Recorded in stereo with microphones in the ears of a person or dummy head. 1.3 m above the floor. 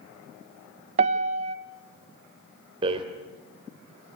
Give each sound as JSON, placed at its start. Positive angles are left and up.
{"t": 1.0, "sound": "a piano", "side_deg": -35, "distance_m": 1.4}
{"t": 2.8, "sound": "a rattle", "side_deg": -25, "distance_m": 2.5}